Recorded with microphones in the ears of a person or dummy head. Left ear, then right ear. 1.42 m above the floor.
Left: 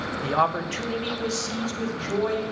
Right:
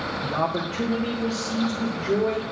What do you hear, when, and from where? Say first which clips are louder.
0.2 s a man speaking: left 4 dB; 55° left (ahead or behind), 0.8 m; by 2.4 s 75° left (ahead or behind), 3 m